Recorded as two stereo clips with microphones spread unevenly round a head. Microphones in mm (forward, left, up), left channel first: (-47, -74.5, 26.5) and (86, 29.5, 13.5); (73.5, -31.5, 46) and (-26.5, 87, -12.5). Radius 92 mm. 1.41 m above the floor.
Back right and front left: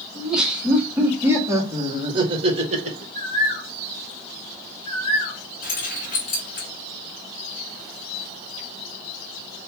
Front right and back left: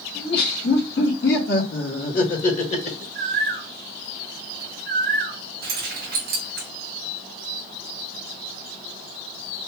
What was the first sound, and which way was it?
Laughter, 50° right.